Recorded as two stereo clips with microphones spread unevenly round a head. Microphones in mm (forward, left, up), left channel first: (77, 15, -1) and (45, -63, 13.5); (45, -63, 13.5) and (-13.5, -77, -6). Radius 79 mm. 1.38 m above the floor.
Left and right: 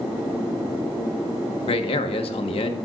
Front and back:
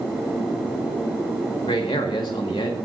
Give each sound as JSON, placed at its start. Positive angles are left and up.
{"t": 1.6, "sound": "a man speaking", "azimuth_deg": 60, "distance_m": 1.5}